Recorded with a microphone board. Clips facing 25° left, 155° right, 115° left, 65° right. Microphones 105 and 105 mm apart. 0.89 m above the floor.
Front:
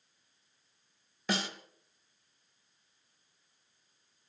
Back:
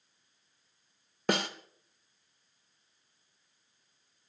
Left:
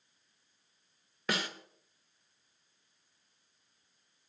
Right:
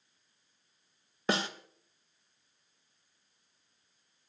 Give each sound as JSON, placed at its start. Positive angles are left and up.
{"t": 1.3, "sound": "a snare drum", "azimuth_deg": -130, "distance_m": 1.0}